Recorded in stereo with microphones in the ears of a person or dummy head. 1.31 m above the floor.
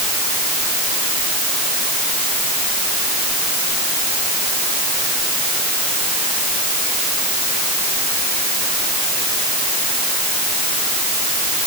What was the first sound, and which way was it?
Only background noise.